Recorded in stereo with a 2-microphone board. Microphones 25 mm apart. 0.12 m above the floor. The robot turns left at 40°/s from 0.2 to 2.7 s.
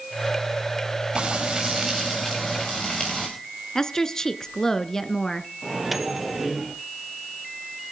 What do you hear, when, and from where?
1.1 s frying: 145° right, 7.5 m; by 3.3 s 155° left, 7.5 m
3.8 s a woman speaking: 25° left (ahead or behind), 1.3 m
5.6 s a microwave: 5° right (ahead or behind), 2.5 m